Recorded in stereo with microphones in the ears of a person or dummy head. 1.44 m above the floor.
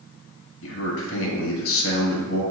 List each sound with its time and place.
0.6 s a man speaking: 70° left (ahead or behind), 0.9 m